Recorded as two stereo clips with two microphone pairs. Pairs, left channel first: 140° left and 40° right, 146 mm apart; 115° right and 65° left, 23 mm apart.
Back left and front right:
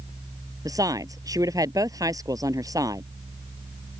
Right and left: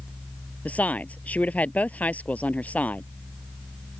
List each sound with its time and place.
0.7 s a woman speaking: 110° right